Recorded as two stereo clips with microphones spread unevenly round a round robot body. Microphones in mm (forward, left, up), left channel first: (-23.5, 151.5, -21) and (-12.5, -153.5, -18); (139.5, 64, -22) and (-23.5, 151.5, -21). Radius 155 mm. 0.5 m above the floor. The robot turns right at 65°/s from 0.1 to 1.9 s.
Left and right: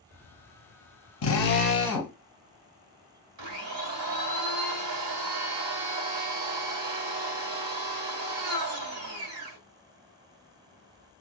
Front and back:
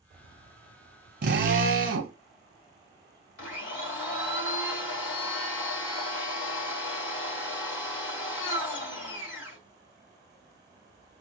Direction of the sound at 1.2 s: 130° left.